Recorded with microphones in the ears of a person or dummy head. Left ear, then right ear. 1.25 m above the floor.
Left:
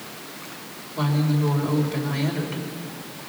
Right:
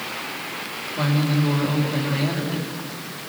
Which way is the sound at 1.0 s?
20° left (ahead or behind).